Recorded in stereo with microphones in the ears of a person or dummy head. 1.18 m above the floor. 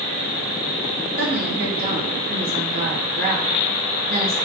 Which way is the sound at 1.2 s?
45° right (ahead or behind).